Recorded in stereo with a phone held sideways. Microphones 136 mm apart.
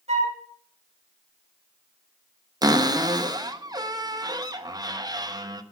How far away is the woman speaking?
No woman speaking in this recording.